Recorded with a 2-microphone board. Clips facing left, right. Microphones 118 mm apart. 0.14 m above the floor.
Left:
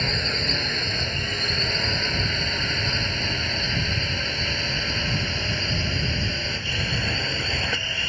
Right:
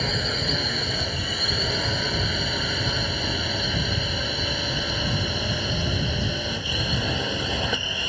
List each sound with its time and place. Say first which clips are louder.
0.0 s a drone: right 1 dB; 5° right (ahead or behind); by 8.1 s 15° right (ahead or behind)